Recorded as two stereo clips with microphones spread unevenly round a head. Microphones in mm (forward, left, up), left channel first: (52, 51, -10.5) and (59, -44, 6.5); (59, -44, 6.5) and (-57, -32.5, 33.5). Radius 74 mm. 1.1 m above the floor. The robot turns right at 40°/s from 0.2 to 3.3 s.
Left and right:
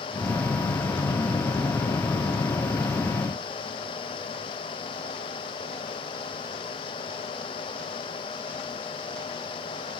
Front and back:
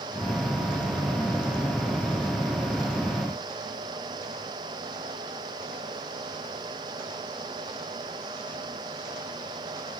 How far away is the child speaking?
No child speaking in this recording.